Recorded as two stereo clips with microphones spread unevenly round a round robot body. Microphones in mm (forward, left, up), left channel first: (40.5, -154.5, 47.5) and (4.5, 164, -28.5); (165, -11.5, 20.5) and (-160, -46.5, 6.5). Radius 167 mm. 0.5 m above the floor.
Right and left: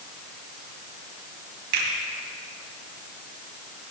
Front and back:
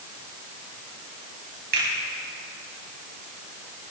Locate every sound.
1.7 s a finger snap: 125° left, 3 m